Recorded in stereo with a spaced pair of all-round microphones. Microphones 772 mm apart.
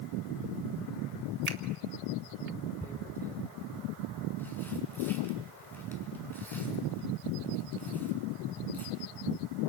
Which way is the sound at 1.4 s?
55° right (ahead or behind).